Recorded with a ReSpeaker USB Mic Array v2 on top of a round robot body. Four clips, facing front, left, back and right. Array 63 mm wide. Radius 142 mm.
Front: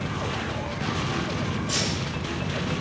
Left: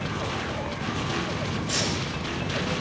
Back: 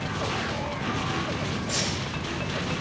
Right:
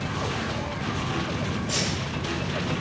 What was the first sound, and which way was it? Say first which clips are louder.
Keys jangling: even, front 1 dB; 25° right.